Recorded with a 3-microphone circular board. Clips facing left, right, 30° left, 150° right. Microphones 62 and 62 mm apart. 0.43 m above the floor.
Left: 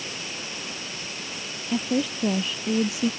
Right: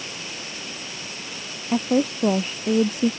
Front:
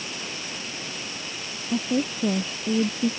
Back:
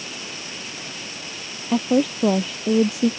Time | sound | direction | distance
1.7 | a woman speaking | 140° right | ?